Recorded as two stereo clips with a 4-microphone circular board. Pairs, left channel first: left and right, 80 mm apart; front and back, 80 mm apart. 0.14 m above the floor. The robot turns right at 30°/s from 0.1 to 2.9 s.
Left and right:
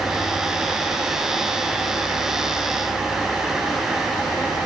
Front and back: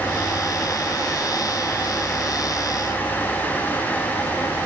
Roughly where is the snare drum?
No snare drum in this recording.